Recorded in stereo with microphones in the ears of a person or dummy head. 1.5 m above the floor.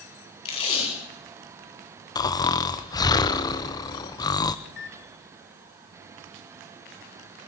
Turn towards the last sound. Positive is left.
turn(degrees=50)  # may be behind; listen again after turning